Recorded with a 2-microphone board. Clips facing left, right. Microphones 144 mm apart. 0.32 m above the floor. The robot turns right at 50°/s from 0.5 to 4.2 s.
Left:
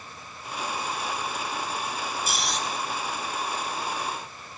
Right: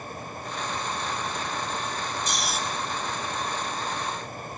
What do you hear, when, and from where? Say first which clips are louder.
2.3 s snoring: even; 5° left (ahead or behind), 2 m; by 2.6 s 5° right (ahead or behind), 2 m